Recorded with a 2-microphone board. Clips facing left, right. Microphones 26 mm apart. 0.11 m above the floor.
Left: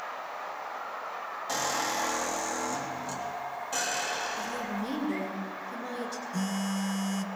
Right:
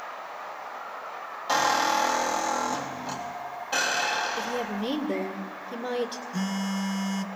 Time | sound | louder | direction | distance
1.5 | a squeak | right 8 dB | 40° right (ahead or behind) | 2.0 m
4.4 | a woman speaking | right 4 dB | 60° right (ahead or behind) | 2 m
6.3 | a phone buzzing | right 2 dB | 20° right (ahead or behind) | 0.5 m